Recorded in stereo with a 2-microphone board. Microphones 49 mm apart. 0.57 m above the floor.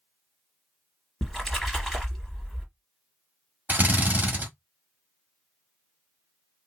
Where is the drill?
40° right (ahead or behind), 1.5 m.